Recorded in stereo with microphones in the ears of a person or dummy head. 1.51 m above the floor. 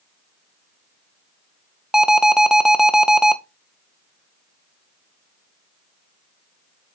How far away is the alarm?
About 0.6 m.